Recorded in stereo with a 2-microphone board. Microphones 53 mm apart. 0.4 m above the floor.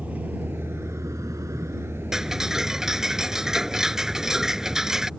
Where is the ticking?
10° right (ahead or behind).